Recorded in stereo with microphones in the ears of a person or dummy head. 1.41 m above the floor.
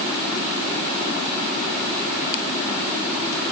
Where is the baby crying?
No baby crying in this recording.